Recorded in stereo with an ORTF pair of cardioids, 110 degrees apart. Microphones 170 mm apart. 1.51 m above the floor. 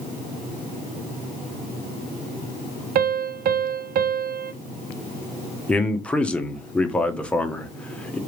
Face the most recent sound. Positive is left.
turn(degrees=5)